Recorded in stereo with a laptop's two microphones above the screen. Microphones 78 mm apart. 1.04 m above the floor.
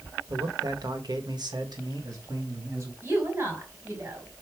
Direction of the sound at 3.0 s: 30° right (ahead or behind).